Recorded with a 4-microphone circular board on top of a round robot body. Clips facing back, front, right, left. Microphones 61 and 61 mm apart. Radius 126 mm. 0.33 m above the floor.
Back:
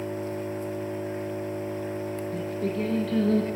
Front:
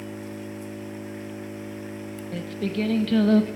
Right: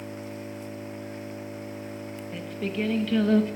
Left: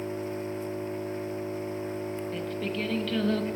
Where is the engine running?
140° left, 1.0 m.